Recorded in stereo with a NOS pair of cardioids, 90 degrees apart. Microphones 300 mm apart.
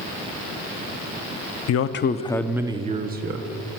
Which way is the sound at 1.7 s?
55° left.